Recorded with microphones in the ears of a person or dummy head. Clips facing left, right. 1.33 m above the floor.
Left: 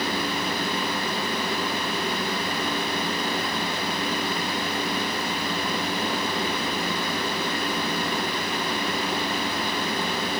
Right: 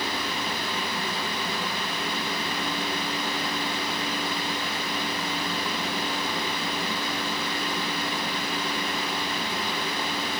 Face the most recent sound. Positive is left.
No sound to turn to.